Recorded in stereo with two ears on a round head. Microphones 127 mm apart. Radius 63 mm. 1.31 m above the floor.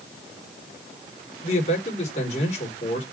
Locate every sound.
1.4 s a man speaking: 45° left (ahead or behind), 4 m